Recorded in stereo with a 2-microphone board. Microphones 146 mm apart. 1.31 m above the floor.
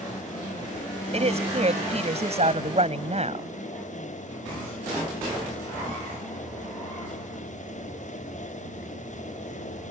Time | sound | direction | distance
1.1 | a woman speaking | 50° right (ahead or behind) | ?